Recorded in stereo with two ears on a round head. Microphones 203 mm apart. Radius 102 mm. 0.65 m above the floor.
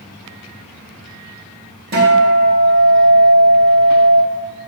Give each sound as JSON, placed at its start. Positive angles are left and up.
{"t": 1.9, "sound": "a guitar", "side_deg": -45, "distance_m": 0.8}